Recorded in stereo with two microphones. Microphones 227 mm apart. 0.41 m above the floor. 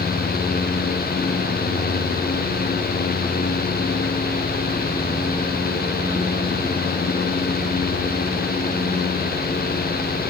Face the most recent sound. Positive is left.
No sound to turn to.